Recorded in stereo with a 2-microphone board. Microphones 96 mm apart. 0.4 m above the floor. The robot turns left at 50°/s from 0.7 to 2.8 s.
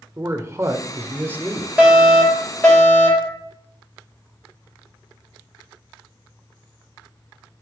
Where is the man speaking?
105° right, 0.9 m; by 1.7 s 150° right, 0.9 m.